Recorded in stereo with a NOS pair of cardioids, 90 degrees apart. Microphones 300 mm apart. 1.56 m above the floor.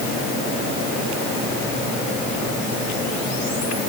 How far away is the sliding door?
I don't hear a sliding door.